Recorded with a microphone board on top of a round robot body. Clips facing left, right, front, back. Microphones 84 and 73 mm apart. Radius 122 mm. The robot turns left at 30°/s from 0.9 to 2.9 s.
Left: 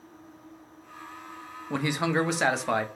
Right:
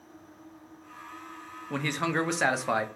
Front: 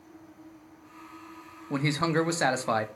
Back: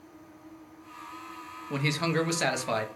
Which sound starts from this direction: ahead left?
A man speaking, at 1.7 s.